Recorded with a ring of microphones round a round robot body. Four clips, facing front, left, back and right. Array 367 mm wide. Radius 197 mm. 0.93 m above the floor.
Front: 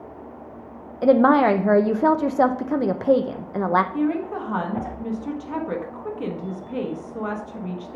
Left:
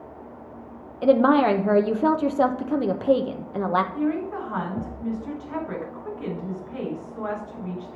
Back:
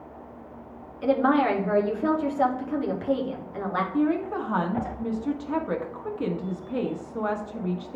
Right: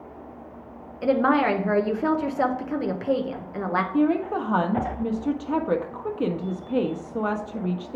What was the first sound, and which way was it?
A woman speaking, 20° left.